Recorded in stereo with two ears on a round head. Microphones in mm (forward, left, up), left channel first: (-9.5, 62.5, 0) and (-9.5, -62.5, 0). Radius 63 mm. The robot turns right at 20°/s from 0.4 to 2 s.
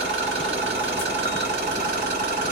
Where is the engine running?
100° right, 2 m; by 2.5 s 70° right, 2 m.